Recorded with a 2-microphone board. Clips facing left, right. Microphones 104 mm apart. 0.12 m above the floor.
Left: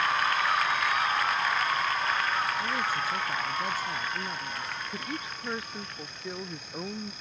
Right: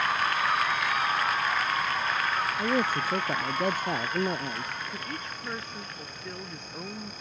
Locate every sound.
2.6 s a man speaking: 50° right (ahead or behind); by 4.8 s 55° right (ahead or behind)
4.9 s a woman speaking: 10° left (ahead or behind)